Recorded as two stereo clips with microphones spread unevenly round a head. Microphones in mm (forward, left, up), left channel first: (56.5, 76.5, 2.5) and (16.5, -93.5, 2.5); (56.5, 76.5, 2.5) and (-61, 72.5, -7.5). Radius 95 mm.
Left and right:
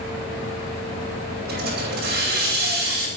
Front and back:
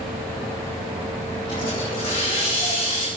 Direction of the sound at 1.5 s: 70° right.